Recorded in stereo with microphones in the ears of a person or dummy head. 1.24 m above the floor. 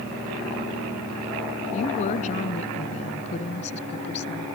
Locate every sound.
1.7 s a woman speaking: 40° left (ahead or behind); by 4.5 s 35° left (ahead or behind)